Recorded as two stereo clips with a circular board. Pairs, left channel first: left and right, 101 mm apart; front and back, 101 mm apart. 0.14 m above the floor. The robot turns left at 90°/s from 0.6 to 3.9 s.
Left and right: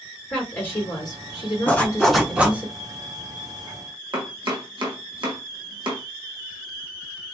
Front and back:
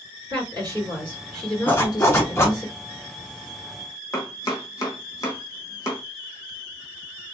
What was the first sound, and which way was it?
A woman speaking, 155° left.